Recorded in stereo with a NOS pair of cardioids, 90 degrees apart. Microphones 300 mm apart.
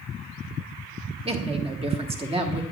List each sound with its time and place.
1.2 s a woman speaking: 20° right, 1.5 m